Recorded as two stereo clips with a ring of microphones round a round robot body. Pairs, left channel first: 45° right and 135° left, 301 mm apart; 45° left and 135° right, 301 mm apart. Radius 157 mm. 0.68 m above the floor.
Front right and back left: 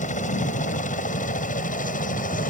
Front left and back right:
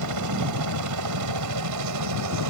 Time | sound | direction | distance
0.0 | a helicopter | 110° right | ?